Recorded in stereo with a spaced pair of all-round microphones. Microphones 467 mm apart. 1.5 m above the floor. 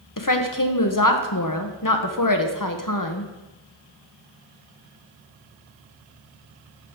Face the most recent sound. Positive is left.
turn(degrees=45)  # may be behind; listen again after turning